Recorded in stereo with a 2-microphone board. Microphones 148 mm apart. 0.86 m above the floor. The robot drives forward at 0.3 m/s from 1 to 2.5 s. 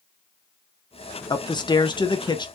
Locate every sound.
1.3 s a man speaking: 30° left (ahead or behind), 0.5 m